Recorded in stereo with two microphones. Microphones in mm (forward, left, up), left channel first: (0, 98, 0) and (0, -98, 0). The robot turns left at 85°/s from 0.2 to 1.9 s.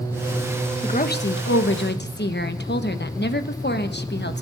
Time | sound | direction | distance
0.8 | a woman speaking | 150° left | 0.9 m